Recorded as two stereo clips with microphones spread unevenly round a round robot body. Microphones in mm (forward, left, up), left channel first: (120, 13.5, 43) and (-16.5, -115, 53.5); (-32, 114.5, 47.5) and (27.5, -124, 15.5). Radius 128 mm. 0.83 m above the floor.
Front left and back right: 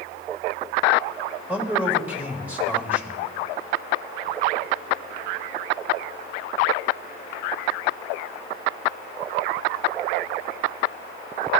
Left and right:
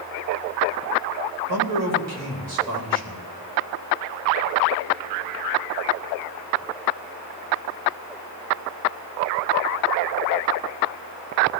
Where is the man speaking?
55° right, 3.5 m.